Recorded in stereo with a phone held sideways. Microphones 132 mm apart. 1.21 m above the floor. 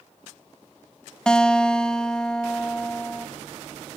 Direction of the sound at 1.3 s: 5° left (ahead or behind).